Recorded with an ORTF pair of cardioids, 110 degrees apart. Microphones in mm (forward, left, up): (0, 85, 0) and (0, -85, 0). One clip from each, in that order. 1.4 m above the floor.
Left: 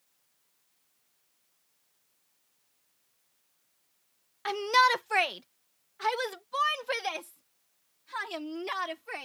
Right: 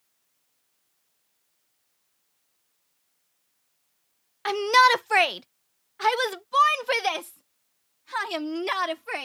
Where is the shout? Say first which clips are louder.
Right 6 dB; 25° right; by 9.2 s 45° right.